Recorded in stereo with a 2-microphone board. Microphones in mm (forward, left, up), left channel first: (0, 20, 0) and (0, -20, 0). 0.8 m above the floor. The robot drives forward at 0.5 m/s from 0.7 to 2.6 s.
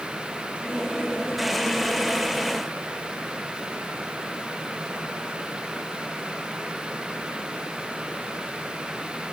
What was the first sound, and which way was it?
Only background noise.